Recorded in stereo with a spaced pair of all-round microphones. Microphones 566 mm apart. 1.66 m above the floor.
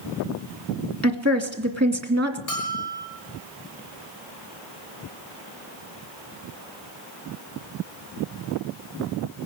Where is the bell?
35° left (ahead or behind), 4.5 m.